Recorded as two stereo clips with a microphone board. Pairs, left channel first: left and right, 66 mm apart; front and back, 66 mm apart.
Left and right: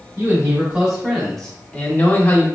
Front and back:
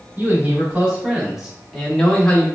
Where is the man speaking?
145° right, 1.1 m; by 2.5 s 60° left, 1.0 m.